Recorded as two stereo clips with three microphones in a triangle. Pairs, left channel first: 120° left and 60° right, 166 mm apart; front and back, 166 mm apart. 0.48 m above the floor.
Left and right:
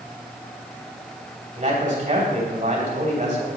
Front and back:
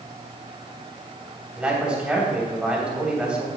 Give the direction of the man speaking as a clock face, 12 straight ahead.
3 o'clock.